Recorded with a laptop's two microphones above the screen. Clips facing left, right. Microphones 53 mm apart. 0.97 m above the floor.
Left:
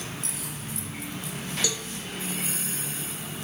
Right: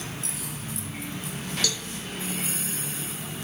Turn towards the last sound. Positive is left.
turn(degrees=20)  # may be behind; listen again after turning